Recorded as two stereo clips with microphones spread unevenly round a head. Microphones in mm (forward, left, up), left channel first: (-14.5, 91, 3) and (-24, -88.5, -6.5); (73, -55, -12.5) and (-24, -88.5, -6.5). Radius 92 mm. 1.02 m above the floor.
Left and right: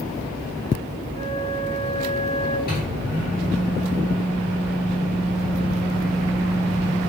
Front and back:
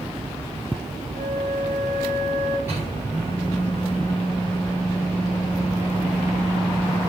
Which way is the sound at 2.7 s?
120° left.